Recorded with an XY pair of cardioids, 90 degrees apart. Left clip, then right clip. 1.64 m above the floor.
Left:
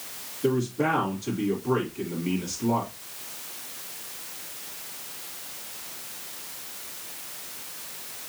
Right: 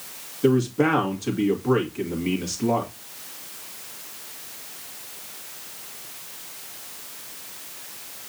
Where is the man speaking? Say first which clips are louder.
Right 5 dB; 60° right, 2 m.